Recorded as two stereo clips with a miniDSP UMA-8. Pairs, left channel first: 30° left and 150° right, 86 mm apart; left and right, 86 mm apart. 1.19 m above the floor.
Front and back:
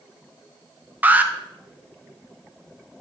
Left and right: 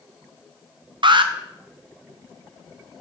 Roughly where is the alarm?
Right.